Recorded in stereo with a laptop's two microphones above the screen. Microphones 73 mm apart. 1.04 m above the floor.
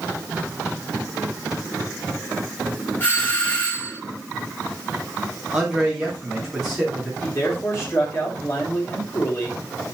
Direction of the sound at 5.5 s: 5° right (ahead or behind).